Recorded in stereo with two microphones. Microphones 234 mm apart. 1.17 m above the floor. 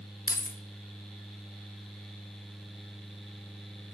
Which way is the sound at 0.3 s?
40° left (ahead or behind).